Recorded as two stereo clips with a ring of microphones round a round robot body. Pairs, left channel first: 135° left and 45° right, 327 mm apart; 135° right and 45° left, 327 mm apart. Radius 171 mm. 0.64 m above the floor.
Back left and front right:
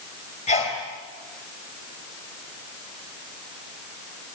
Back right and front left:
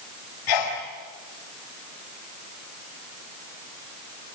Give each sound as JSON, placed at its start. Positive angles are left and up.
{"t": 0.5, "sound": "a sneeze", "azimuth_deg": -155, "distance_m": 3.0}